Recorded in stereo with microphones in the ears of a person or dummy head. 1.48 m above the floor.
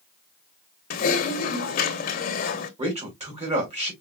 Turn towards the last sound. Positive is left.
turn(degrees=-35)  # may be behind; listen again after turning